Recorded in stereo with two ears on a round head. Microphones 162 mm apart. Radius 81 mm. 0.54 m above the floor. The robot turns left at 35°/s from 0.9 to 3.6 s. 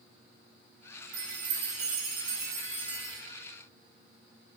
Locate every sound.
1.1 s a chime: 110° right, 1.7 m; by 3.2 s 175° left, 1.7 m